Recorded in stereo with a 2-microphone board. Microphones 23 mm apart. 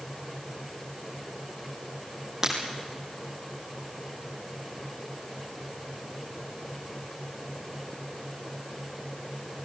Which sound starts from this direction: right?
Breaking glass, at 2.4 s.